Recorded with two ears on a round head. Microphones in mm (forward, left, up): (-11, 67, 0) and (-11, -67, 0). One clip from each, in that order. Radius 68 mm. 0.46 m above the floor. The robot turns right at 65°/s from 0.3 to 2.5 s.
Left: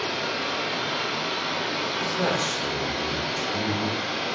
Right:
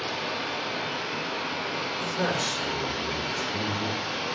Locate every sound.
0.0 s running water: 15° left, 3.5 m; by 4.3 s 160° left, 3.5 m
2.0 s a man speaking: 155° left, 1.5 m; by 4.0 s 170° right, 1.5 m